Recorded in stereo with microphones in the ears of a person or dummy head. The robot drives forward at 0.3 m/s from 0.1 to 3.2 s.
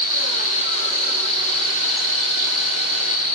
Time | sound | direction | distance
0.0 | an insect | 75° left (ahead or behind) | 2 m